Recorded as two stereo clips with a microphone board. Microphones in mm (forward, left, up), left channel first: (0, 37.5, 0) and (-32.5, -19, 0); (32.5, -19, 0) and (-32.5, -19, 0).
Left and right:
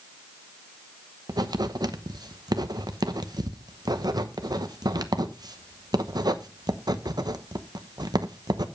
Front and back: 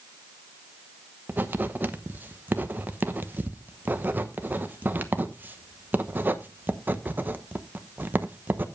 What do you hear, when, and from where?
1.3 s writing: 120° right, 1.0 m